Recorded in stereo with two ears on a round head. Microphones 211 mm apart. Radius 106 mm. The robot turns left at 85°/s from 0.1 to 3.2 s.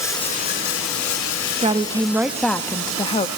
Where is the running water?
165° left, 3.5 m; by 3.4 s 95° right, 3.5 m.